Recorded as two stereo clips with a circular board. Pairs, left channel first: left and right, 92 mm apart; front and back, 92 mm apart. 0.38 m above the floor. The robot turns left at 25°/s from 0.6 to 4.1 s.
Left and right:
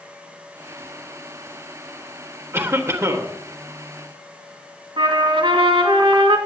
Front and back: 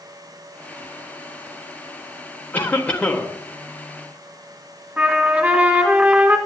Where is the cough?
60° right, 1.4 m; by 3.3 s 80° right, 1.4 m.